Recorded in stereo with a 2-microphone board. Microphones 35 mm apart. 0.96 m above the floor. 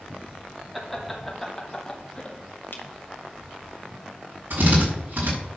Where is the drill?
65° right (ahead or behind), 6.5 m.